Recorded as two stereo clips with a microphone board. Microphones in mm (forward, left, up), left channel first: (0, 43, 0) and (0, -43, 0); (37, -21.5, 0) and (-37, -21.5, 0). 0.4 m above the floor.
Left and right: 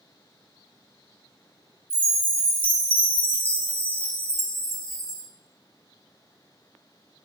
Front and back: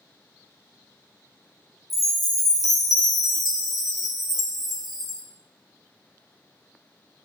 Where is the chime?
95° left, 0.6 m.